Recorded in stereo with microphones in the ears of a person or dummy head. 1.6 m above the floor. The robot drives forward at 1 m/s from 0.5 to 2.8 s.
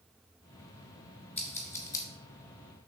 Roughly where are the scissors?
Centre.